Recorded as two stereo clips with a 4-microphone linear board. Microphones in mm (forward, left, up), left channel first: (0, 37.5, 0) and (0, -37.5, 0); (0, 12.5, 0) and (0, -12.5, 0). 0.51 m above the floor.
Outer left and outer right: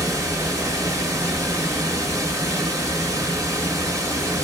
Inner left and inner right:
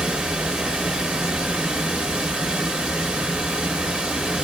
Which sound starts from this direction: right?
Running water, at 0.0 s.